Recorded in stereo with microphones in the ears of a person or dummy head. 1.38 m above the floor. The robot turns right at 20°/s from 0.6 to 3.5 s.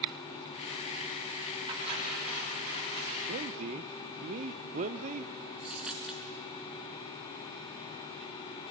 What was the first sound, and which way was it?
Cutlery clinking, 35° right (ahead or behind).